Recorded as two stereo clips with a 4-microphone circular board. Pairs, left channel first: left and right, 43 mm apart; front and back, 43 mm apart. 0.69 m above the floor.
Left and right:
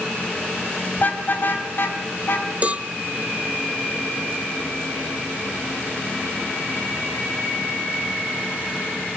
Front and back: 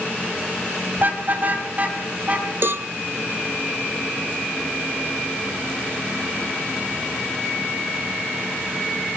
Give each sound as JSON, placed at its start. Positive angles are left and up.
{"t": 1.0, "sound": "a car horn", "azimuth_deg": 135, "distance_m": 2.5}
{"t": 2.6, "sound": "a cowbell", "azimuth_deg": -150, "distance_m": 0.5}